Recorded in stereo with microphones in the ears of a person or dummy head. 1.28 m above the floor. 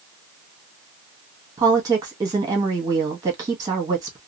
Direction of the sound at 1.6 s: 20° right (ahead or behind).